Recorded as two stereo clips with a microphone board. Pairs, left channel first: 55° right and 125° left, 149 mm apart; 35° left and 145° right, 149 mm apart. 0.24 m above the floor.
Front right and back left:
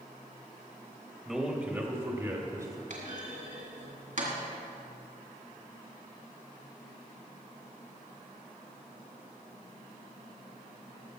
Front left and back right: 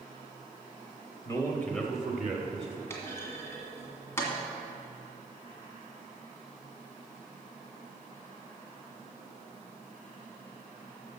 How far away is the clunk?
About 2.0 m.